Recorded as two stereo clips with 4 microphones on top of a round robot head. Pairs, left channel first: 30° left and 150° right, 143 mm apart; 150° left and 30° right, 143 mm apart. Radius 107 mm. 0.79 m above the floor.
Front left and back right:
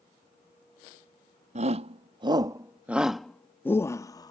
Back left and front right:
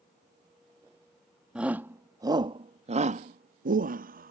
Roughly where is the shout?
Behind right.